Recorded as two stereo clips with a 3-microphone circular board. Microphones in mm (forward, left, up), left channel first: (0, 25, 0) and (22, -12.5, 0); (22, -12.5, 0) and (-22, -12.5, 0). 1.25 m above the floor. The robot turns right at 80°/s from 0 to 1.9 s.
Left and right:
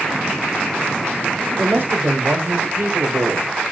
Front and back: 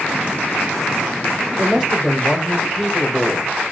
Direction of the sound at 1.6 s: 120° right.